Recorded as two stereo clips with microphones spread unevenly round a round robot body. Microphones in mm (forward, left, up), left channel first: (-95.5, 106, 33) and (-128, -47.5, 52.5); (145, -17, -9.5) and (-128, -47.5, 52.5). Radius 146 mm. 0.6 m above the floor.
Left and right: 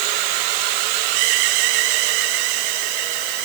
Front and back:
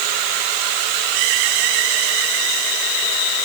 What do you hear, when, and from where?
Only background noise.